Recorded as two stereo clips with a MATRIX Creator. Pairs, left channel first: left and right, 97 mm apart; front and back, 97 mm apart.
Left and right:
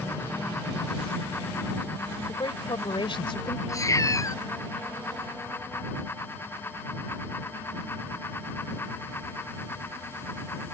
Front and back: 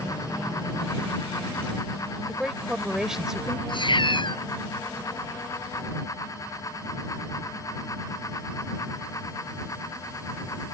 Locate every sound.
2.3 s a woman speaking: 95° left
3.7 s a cat meowing: 35° left